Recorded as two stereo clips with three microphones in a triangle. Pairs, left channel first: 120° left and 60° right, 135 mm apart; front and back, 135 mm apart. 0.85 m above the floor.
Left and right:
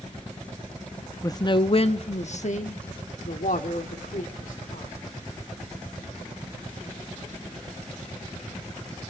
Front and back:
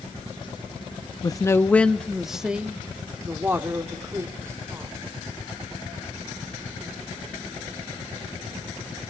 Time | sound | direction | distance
1.2 | a man speaking | 60° left | 0.6 m